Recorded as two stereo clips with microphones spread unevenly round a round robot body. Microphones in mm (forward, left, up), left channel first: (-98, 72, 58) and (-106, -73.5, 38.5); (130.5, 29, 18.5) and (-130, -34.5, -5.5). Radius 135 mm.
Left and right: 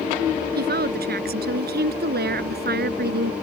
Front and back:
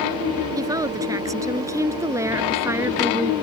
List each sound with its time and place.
0.6 s a woman speaking: 90° right; by 3.3 s 85° right